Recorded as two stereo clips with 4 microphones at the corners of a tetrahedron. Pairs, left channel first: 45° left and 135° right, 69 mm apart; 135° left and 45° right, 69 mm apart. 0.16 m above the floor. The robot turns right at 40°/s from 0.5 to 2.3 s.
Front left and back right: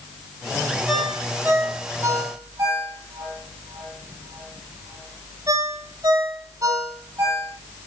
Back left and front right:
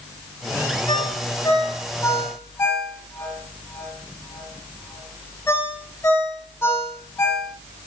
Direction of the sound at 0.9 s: 135° left.